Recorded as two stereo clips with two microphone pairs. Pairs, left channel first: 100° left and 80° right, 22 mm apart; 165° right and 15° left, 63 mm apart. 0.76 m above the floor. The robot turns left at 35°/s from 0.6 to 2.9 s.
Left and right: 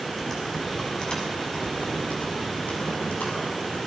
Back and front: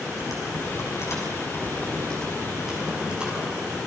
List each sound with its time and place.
0.2 s typing on a keyboard: 170° left, 6.5 m; by 3.8 s 90° left, 6.5 m